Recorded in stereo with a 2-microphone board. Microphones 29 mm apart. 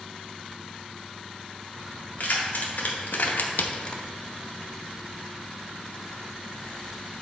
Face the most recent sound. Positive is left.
turn(degrees=20)  # may be behind; listen again after turning